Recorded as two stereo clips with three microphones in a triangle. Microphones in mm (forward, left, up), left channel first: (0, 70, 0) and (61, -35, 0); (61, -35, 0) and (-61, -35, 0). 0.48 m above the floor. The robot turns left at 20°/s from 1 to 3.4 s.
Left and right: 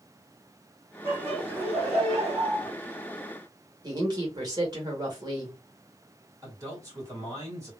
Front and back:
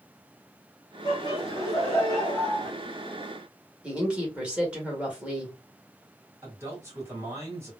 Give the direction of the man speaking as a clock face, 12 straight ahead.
4 o'clock.